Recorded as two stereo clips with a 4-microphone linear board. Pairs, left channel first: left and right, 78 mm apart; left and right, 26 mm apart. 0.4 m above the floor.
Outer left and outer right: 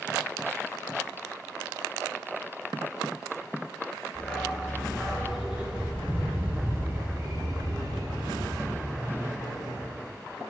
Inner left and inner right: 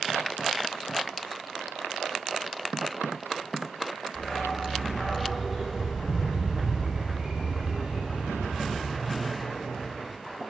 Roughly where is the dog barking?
Centre.